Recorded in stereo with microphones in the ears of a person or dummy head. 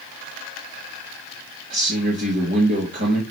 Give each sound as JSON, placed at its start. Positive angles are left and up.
{"t": 1.7, "sound": "a man speaking", "side_deg": -50, "distance_m": 2.0}